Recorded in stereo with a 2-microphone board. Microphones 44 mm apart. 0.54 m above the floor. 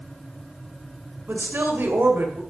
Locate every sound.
1.3 s a woman speaking: 60° right (ahead or behind), 2 m